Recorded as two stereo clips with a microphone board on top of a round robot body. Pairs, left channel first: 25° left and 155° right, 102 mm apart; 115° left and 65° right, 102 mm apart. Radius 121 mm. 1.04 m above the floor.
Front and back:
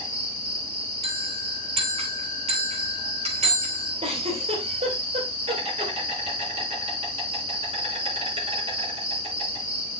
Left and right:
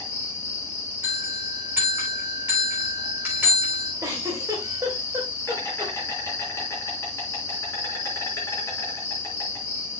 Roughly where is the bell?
Behind right.